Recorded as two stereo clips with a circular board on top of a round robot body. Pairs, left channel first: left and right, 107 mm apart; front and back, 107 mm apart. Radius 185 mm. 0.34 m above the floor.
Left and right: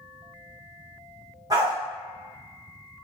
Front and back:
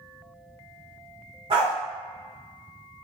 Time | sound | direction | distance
1.5 | a dog barking | 145° right | 1.5 m